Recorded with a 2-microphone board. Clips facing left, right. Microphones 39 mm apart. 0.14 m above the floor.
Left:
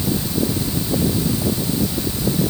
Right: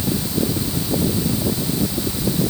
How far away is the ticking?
I don't hear ticking.